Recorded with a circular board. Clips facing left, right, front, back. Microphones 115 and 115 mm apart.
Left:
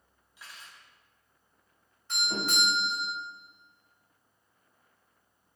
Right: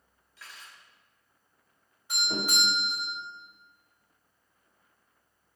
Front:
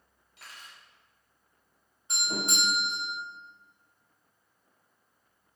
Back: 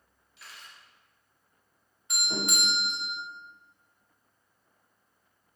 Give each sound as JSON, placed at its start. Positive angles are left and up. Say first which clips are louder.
{"t": 0.4, "sound": "cutlery clinking", "louder": "even, even", "azimuth_deg": 20, "distance_m": 0.8}
{"t": 2.1, "sound": "a doorbell", "louder": "even, even", "azimuth_deg": -25, "distance_m": 1.7}